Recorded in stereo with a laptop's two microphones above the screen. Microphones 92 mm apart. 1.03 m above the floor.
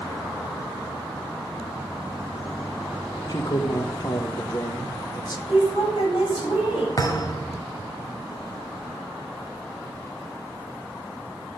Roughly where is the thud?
Left.